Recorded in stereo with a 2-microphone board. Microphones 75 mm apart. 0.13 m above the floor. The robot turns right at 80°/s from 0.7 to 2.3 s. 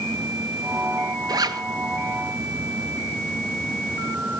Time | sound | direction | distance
1.3 | a zipper | 60° right (ahead or behind) | 0.7 m